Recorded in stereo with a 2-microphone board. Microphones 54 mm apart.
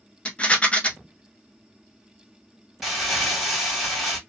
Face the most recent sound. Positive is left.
turn(degrees=-5)  # may be behind; listen again after turning